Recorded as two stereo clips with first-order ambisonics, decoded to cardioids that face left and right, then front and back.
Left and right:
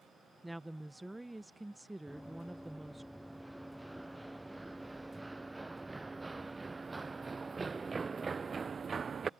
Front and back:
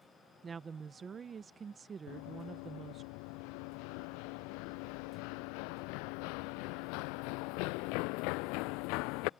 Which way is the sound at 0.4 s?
165° right.